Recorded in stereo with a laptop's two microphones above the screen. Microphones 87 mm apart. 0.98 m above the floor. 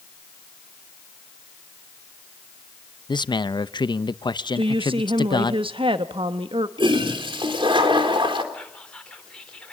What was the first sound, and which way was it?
A man speaking, 55° left (ahead or behind).